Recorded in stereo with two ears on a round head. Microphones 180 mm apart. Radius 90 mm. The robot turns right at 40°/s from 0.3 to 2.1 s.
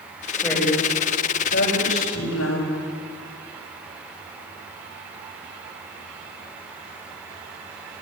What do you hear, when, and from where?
0.3 s a woman speaking: centre (ahead or behind), 8 m; by 2.8 s 75° left (ahead or behind), 8 m